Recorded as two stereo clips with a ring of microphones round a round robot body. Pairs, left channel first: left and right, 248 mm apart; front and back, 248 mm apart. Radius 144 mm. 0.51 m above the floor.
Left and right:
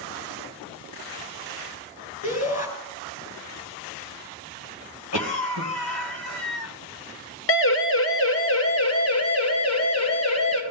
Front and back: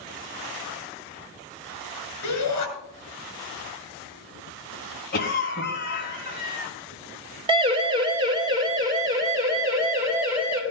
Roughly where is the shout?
Ahead left.